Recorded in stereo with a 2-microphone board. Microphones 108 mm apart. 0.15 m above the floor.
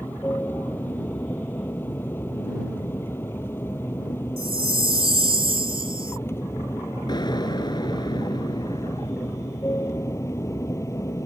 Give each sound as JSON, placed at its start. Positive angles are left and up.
{"t": 0.0, "sound": "an aircraft", "side_deg": 20}
{"t": 4.4, "sound": "a chime", "side_deg": -55}
{"t": 7.1, "sound": "an explosion", "side_deg": 40}